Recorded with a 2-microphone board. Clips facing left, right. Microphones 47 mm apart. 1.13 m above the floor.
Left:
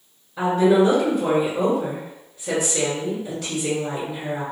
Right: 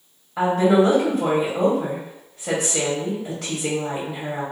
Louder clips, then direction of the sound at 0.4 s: Even; 55° right (ahead or behind).